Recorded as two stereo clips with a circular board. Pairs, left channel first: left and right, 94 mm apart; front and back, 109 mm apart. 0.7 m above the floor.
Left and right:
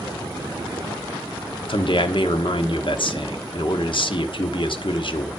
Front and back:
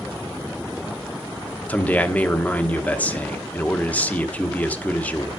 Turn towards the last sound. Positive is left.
turn(degrees=75)